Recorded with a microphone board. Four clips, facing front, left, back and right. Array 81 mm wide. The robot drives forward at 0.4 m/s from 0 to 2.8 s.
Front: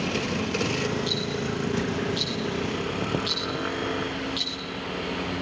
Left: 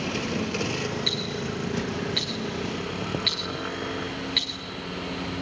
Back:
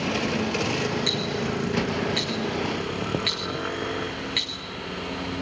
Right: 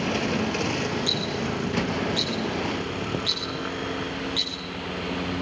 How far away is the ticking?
About 4 m.